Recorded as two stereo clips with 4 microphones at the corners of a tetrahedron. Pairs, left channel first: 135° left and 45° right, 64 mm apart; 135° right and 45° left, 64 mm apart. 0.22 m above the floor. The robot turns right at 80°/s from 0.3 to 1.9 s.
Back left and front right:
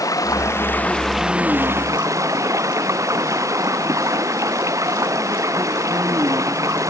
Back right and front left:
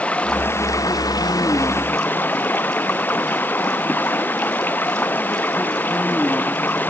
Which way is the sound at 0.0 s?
155° left.